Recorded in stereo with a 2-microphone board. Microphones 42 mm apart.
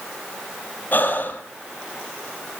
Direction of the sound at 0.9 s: 45° left (ahead or behind).